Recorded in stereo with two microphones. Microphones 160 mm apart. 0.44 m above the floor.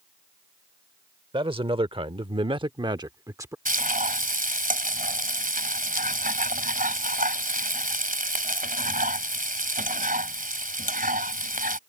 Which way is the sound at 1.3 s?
30° right (ahead or behind).